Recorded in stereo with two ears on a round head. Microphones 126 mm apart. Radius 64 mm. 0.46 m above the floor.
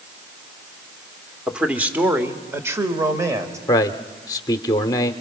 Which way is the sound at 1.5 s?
5° right (ahead or behind).